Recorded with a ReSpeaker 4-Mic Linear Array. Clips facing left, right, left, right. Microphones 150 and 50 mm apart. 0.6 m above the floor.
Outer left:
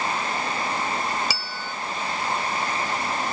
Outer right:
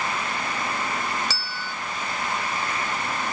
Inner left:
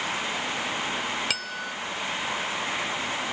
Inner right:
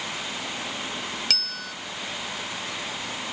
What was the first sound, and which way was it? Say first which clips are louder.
A bell: outer left 1 dB, inner left 2 dB; 10° left (ahead or behind).